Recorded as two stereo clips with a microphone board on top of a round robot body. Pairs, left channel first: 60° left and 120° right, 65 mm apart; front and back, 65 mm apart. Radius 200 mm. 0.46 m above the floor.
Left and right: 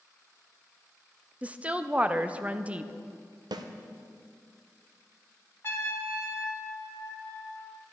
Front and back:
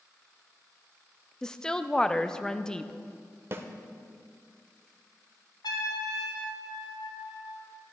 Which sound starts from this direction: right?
A woman speaking, at 1.4 s.